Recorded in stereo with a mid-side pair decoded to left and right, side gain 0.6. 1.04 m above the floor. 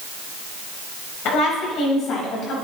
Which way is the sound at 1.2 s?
65° left.